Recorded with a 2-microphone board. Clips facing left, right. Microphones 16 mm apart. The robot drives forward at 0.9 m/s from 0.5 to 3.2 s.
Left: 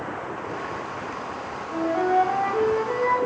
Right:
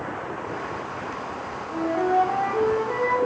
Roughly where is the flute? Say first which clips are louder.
Left 1 dB; left.